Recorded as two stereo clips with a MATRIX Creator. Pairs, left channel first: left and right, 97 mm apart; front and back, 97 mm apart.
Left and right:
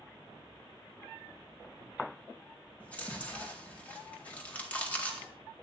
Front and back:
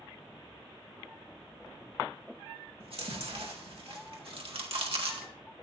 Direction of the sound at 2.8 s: 165° left.